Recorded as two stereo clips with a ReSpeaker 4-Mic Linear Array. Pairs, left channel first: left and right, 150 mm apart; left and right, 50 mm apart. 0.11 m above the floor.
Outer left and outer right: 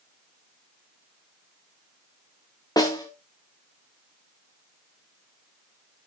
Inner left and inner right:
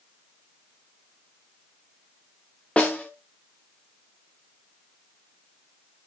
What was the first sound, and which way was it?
A snare drum, 25° left (ahead or behind).